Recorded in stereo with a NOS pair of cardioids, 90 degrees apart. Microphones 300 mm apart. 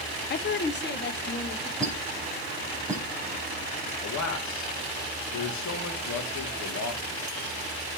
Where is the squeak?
10° right, 3.5 m.